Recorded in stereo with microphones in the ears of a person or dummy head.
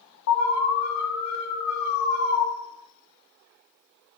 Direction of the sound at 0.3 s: 60° left (ahead or behind).